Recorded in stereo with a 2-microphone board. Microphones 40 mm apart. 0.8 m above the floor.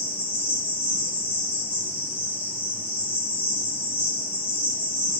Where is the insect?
55° right (ahead or behind), 1.3 m.